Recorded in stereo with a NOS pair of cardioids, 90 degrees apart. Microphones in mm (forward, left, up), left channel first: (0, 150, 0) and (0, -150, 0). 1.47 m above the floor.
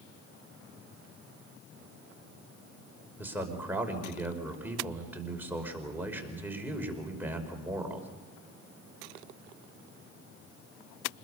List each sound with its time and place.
3.2 s a man speaking: 5° right, 5 m